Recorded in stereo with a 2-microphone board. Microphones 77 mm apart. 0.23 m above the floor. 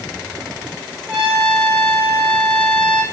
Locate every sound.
1.1 s a trumpet: 5° right (ahead or behind), 7.5 m